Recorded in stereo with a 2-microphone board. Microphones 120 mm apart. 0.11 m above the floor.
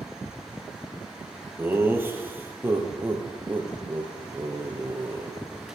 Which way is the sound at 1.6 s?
15° right (ahead or behind).